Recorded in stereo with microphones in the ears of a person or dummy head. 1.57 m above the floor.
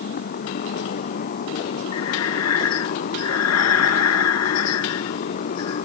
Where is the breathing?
90° left.